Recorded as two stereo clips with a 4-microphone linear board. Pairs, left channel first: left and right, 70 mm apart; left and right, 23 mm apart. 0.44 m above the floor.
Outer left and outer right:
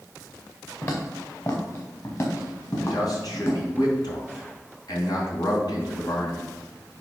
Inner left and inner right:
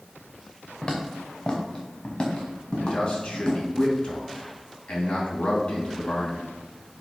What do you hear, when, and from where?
0.8 s footsteps: 45° left (ahead or behind), 2.5 m
2.8 s a man speaking: 70° left (ahead or behind), 3 m